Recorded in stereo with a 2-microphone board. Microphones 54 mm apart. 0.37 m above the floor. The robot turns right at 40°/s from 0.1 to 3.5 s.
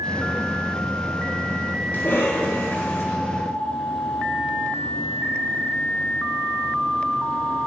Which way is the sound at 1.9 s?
60° left.